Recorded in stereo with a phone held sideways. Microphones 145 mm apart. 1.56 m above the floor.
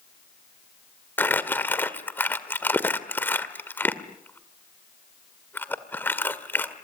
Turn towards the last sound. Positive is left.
turn(degrees=15)  # may be behind; listen again after turning